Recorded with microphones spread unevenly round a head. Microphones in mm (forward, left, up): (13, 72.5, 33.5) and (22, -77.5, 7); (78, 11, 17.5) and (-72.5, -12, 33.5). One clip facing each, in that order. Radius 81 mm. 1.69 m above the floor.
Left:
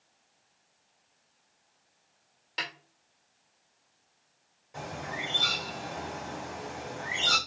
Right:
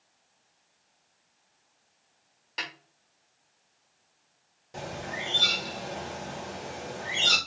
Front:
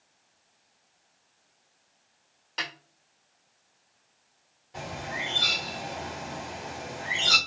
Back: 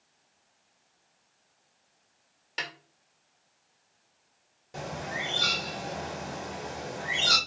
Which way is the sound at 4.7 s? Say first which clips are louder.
Right 1 dB, back 1 dB; 145° right.